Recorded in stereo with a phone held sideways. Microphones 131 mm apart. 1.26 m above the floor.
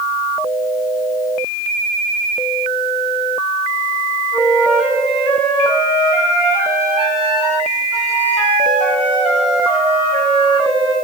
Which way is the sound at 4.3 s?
10° right (ahead or behind).